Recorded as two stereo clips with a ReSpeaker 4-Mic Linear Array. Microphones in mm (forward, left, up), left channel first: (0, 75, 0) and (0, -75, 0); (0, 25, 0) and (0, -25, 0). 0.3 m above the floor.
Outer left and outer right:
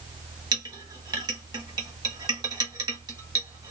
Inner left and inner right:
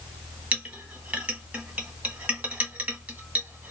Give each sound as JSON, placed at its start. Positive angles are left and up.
{"t": 0.5, "sound": "a clink", "side_deg": -30, "distance_m": 1.1}